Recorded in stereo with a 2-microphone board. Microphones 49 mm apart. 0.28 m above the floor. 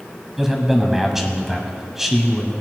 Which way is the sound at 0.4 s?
10° right (ahead or behind).